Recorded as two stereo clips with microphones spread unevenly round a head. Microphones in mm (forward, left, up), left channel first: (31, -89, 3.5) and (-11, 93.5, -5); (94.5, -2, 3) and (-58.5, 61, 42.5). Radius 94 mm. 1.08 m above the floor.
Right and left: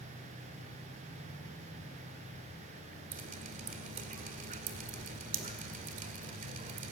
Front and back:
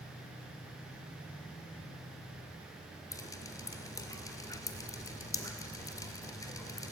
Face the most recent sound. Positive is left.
turn(degrees=50)